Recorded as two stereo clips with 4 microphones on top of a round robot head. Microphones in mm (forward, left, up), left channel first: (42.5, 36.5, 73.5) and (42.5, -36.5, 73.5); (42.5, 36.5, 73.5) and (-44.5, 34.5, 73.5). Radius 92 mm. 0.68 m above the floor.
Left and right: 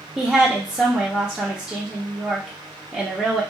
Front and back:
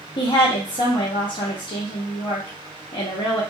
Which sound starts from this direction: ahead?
A woman speaking, at 0.2 s.